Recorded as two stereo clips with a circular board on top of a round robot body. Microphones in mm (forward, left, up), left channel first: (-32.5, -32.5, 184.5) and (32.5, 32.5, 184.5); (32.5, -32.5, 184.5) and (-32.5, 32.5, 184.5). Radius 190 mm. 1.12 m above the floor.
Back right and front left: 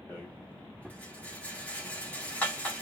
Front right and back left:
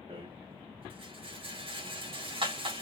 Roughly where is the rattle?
Behind left.